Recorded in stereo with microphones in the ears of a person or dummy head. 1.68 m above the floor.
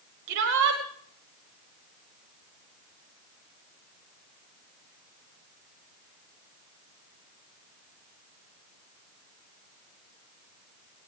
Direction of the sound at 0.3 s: 70° right (ahead or behind).